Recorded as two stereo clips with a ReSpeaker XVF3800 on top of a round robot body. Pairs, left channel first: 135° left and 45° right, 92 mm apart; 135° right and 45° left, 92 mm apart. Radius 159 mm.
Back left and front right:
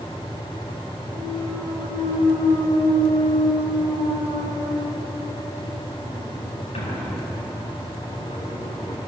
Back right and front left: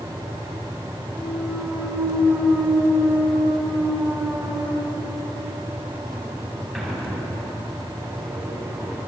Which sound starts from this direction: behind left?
A clunk, at 1.1 s.